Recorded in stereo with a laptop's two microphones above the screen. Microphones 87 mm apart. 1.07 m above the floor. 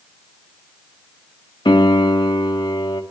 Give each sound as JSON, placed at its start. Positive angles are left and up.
{"t": 1.6, "sound": "a piano", "side_deg": 65, "distance_m": 1.3}